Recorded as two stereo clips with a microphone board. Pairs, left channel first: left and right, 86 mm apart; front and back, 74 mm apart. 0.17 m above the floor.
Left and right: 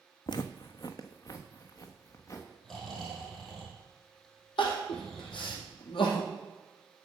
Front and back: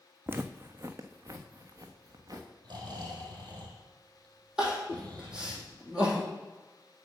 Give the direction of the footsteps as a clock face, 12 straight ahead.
8 o'clock.